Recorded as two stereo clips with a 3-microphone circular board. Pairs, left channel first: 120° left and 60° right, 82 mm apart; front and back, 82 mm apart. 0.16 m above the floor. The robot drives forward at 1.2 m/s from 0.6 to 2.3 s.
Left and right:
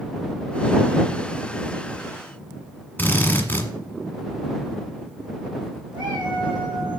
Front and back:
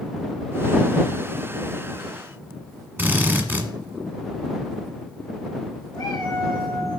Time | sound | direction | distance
3.0 | a drill | 145° left | 1.4 m
5.9 | a cat meowing | 40° right | 5.5 m